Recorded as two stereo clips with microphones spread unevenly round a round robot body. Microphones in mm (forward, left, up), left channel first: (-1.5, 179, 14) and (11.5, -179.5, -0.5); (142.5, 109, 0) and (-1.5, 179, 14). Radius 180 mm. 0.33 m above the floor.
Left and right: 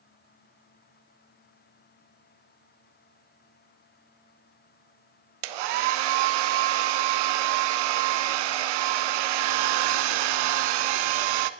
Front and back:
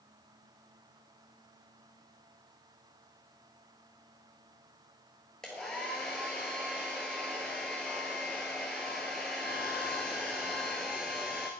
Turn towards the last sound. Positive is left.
turn(degrees=-115)